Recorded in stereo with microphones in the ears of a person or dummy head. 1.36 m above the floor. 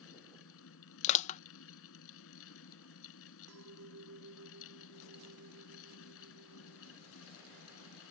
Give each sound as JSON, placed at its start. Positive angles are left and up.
{"t": 0.0, "sound": "a fan", "side_deg": 80}
{"t": 1.0, "sound": "crushing", "side_deg": 40}
{"t": 3.5, "sound": "a clink", "side_deg": -80}